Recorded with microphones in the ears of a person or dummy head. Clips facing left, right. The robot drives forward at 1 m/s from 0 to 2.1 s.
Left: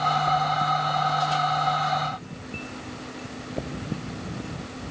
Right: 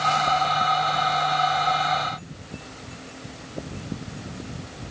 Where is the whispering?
No whispering in this recording.